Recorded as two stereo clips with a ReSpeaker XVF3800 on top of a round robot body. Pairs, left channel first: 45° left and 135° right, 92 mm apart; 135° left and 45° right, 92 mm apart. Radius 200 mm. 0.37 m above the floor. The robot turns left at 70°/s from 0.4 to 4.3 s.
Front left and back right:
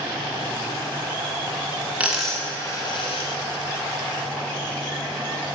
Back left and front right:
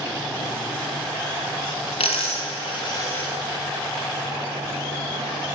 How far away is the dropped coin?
About 1.3 m.